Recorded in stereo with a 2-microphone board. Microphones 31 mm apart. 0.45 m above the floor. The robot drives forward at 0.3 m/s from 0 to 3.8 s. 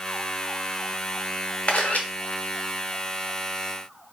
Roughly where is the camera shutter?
Left.